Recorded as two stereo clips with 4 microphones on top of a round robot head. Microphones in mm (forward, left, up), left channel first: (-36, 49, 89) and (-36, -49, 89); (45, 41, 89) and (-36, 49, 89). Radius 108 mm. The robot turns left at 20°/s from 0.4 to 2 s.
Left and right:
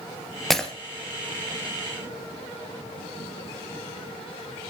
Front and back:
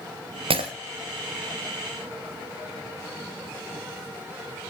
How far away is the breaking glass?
About 2.5 m.